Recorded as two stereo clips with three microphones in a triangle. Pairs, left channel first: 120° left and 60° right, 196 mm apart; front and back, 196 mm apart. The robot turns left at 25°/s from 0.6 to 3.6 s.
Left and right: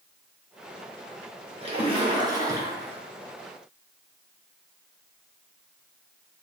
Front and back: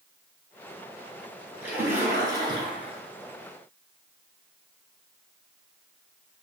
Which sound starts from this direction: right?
A splash, at 1.6 s.